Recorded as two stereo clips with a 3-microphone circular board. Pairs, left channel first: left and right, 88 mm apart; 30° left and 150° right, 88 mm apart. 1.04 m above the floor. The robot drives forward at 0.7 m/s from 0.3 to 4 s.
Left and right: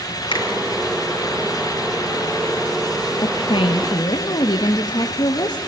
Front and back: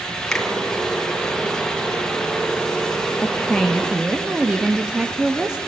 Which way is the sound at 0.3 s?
110° left.